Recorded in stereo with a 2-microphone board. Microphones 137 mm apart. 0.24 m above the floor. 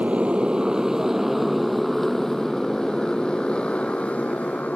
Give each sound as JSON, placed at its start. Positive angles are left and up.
{"t": 0.0, "sound": "a motorcycle", "side_deg": -10}